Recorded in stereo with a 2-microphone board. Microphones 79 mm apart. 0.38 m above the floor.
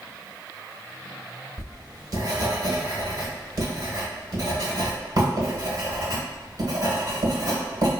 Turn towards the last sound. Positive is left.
turn(degrees=-55)  # may be behind; listen again after turning